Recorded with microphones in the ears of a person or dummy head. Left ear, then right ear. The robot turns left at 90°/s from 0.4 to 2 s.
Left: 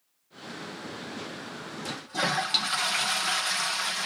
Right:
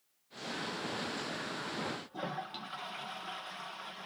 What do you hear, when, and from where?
1.9 s a toilet flushing: 70° left (ahead or behind)